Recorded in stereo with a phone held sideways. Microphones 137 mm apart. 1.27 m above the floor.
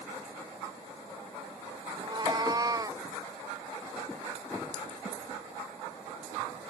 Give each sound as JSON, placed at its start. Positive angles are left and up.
{"t": 2.0, "sound": "a cat meowing", "side_deg": -35}